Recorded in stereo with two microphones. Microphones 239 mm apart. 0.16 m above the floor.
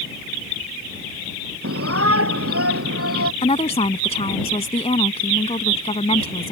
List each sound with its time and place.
1.6 s a shout: 70° right (ahead or behind)
3.4 s a woman speaking: 25° left (ahead or behind)